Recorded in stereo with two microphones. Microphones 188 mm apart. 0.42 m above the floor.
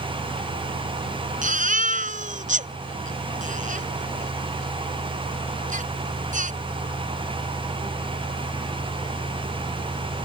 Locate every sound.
1.4 s a baby crying: 45° right (ahead or behind)